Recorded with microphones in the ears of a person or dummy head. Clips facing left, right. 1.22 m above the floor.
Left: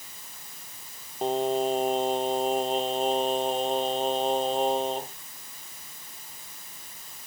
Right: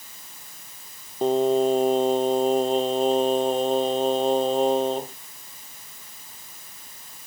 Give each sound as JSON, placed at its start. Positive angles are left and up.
{"t": 1.2, "sound": "singing", "side_deg": -60}